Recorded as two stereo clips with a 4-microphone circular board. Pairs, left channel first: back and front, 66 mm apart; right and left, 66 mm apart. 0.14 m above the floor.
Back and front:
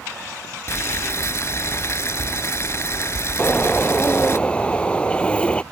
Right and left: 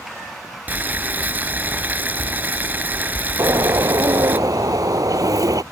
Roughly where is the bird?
Left.